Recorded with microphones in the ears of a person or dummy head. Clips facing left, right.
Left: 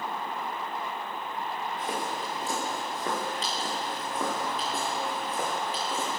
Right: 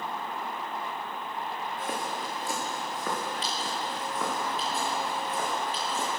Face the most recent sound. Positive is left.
turn(degrees=50)  # may be behind; listen again after turning